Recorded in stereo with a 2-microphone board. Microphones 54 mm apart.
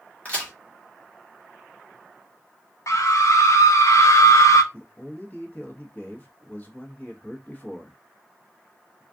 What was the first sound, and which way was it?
A crack, 30° left (ahead or behind).